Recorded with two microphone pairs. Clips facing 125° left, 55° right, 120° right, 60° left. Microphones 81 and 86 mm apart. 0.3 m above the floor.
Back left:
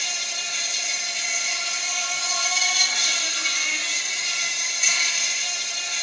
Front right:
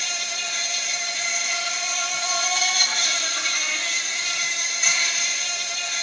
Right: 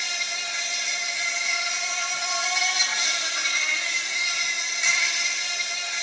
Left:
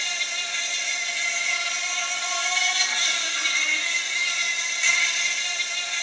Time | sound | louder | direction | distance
0.0 | an insect | front right 2 dB, even | 55° right | 1.3 m